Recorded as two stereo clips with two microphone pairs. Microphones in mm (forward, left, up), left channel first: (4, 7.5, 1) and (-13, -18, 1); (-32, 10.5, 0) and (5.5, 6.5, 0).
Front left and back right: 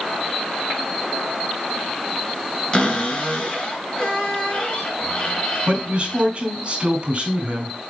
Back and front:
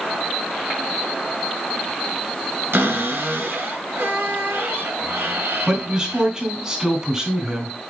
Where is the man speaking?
75° right, 2.5 m.